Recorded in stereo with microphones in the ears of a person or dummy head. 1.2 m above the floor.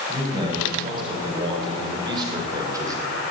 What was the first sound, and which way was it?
A man speaking, 25° right (ahead or behind).